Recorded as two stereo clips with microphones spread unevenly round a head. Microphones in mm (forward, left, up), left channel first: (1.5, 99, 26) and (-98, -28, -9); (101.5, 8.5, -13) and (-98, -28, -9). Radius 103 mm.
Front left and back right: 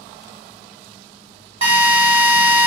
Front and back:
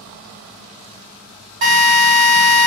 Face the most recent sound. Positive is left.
turn(degrees=175)